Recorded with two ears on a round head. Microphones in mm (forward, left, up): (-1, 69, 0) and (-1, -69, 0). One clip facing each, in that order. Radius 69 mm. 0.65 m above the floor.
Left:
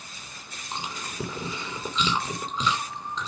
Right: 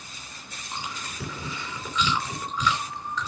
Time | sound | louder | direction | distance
0.7 | chewing | left 2 dB | 20° left (ahead or behind) | 2.5 m